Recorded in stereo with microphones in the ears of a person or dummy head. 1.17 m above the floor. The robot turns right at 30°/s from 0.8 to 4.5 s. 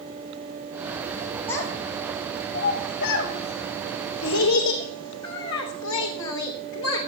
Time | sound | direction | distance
1.5 | a child speaking | 10° left (ahead or behind) | 3.5 m